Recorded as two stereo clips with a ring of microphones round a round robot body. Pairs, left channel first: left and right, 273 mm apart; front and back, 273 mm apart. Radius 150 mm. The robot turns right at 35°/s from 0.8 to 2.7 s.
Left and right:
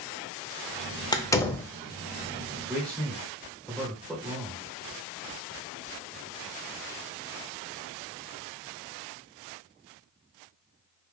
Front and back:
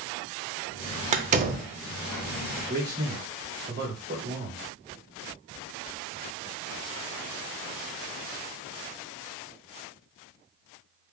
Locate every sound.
1.1 s a door slam: 150° left, 0.5 m; by 1.7 s 170° left, 0.5 m
2.7 s a man speaking: 175° left, 1.7 m